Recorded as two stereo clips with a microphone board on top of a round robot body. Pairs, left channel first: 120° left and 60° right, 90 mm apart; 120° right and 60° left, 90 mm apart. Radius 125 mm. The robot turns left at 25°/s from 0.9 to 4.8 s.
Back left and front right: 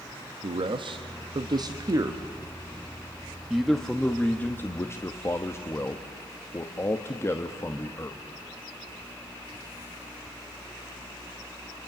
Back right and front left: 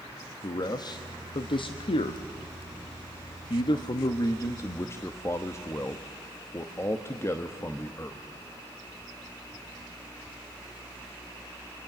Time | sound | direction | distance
0.4 | a man speaking | 80° right | 1.1 m